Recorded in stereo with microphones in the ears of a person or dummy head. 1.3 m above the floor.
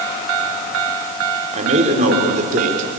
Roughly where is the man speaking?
Right.